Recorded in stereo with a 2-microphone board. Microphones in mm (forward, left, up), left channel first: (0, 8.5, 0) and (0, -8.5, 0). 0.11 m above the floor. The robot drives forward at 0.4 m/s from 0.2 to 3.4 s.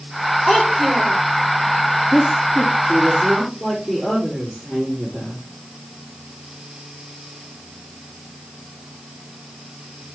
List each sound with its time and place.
0.5 s a child speaking: 70° left (ahead or behind), 4 m; by 1.2 s 65° left (ahead or behind), 4 m
2.1 s a woman speaking: 35° left (ahead or behind), 5 m; by 5.4 s 30° left (ahead or behind), 5.5 m